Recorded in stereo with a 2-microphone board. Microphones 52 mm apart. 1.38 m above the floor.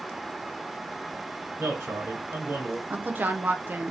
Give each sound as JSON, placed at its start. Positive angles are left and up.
{"t": 1.6, "sound": "a man speaking", "side_deg": -60, "distance_m": 1.8}
{"t": 2.9, "sound": "a woman speaking", "side_deg": -35, "distance_m": 0.8}